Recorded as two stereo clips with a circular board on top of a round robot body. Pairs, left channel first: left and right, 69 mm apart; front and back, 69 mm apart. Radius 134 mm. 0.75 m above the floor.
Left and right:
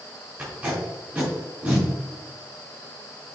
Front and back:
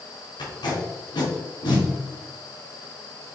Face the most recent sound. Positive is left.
turn(degrees=-15)